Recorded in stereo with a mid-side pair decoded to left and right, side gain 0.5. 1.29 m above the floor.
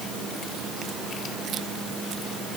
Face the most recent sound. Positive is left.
No sound to turn to.